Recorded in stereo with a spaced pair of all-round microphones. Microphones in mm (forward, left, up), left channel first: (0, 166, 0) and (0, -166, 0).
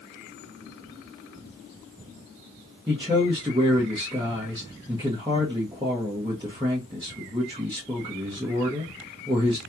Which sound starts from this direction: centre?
A man speaking, at 2.9 s.